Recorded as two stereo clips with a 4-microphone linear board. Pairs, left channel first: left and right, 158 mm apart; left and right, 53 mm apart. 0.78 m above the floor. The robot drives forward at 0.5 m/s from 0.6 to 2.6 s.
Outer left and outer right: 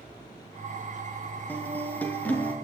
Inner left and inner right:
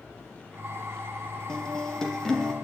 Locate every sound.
1.5 s a guitar: 10° left (ahead or behind), 4.5 m